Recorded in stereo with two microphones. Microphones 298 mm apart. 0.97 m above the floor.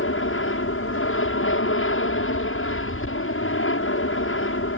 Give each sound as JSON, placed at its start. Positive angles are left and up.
{"t": 0.0, "sound": "an aircraft", "side_deg": 45}